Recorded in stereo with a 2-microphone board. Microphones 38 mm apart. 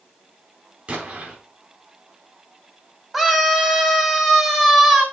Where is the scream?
5° right (ahead or behind), 2.5 m.